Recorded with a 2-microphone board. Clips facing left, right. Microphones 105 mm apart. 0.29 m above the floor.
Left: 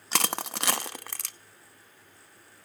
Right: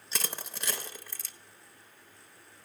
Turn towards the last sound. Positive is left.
turn(degrees=75)  # may be behind; listen again after turning